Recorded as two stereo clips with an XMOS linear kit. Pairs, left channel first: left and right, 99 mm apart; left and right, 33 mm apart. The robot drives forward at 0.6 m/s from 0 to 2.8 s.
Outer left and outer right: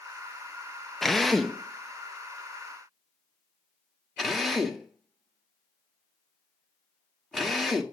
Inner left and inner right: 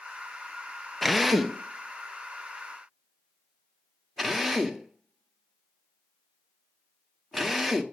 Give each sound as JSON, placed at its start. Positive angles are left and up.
{"t": 1.0, "sound": "a drill", "side_deg": 0, "distance_m": 0.8}